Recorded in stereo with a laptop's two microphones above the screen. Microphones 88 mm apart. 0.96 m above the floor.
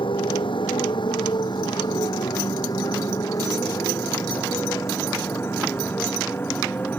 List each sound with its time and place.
0.0 s a motorcycle: 70° left (ahead or behind); by 7.0 s 20° left (ahead or behind)